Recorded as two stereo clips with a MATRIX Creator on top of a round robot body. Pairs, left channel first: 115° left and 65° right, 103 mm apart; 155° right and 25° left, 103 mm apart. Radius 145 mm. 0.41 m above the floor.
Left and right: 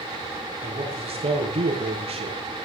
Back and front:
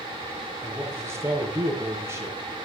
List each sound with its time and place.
0.6 s a man speaking: 45° right, 8 m